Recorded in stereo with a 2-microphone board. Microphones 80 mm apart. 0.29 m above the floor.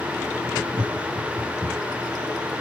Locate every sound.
0.7 s laughter: 45° right (ahead or behind), 2 m; by 2.0 s 15° right (ahead or behind), 2 m